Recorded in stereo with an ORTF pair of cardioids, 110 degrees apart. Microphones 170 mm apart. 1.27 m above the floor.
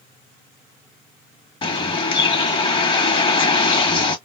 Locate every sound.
1.6 s a bird: 30° left, 2 m